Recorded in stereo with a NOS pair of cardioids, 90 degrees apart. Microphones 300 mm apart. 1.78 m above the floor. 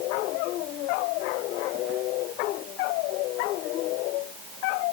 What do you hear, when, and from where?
Only background noise.